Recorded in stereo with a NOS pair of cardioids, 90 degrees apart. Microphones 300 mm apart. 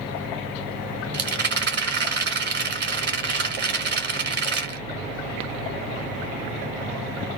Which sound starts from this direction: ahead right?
A rattle, at 1.1 s.